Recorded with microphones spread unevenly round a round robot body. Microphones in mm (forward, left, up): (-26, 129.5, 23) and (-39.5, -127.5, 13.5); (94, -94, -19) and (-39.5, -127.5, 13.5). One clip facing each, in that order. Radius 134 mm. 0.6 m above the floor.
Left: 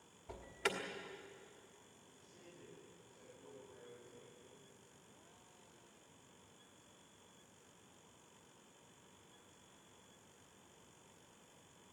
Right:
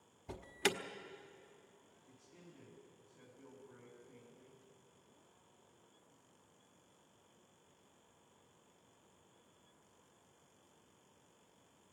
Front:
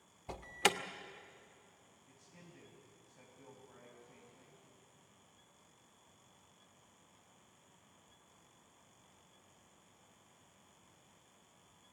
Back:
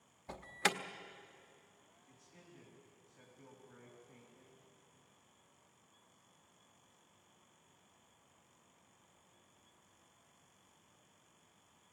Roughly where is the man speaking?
Ahead right.